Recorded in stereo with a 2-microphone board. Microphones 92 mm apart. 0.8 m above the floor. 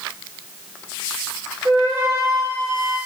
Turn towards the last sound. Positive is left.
turn(degrees=-40)  # may be behind; listen again after turning